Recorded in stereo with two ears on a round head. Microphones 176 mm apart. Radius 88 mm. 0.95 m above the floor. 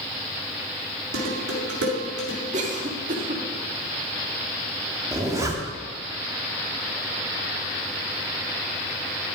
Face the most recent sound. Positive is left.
turn(degrees=-15)  # may be behind; listen again after turning